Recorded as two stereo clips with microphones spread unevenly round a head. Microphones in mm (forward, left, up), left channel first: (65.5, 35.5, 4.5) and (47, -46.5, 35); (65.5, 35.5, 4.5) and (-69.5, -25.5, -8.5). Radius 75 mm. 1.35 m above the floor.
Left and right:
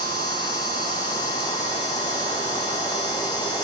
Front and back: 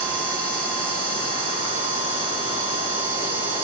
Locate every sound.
0.0 s a machine running: 125° left, 4 m